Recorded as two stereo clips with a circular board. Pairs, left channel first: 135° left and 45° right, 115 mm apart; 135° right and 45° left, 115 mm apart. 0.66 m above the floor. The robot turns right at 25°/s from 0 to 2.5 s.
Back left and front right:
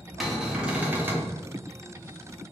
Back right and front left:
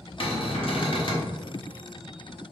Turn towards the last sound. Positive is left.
turn(degrees=-75)